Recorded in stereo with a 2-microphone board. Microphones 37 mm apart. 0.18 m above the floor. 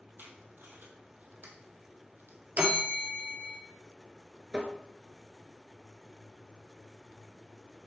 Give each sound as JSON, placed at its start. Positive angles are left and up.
{"t": 0.2, "sound": "tape being pulled", "side_deg": -70, "distance_m": 1.6}
{"t": 2.6, "sound": "a bell", "side_deg": -45, "distance_m": 1.7}
{"t": 4.5, "sound": "tapping", "side_deg": -20, "distance_m": 1.0}